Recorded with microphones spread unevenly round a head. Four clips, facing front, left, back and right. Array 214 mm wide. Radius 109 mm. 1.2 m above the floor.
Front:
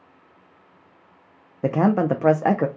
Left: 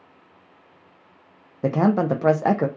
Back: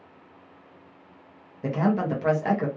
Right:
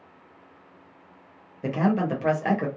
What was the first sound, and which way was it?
A man speaking, 35° left.